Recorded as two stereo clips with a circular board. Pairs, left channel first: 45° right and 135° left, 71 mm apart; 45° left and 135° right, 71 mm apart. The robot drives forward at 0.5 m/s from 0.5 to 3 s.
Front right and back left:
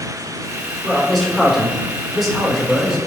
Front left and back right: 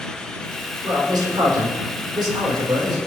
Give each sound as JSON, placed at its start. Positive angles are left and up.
{"t": 0.8, "sound": "a man speaking", "azimuth_deg": -130, "distance_m": 4.0}